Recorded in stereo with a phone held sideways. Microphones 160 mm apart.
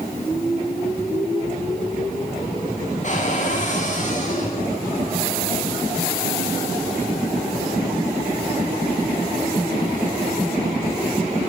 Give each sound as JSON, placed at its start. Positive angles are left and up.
{"t": 3.0, "sound": "a cupboard door", "side_deg": 50, "distance_m": 9.0}